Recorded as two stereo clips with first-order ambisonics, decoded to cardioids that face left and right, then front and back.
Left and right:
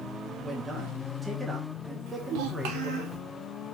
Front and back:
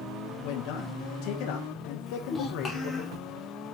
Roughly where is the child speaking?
Right.